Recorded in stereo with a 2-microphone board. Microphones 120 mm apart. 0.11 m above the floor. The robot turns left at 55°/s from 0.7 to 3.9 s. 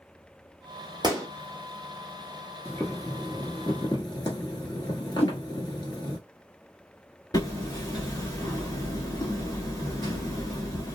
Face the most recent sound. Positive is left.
turn(degrees=35)  # may be behind; listen again after turning